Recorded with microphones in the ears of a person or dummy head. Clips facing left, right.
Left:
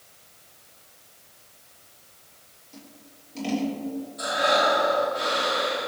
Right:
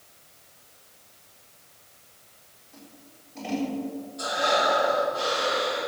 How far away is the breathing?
About 3.5 m.